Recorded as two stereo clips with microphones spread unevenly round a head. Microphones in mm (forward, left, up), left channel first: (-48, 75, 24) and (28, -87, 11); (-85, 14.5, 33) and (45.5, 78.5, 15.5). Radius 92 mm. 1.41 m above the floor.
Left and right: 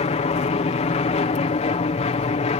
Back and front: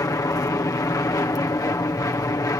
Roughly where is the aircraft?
Behind left.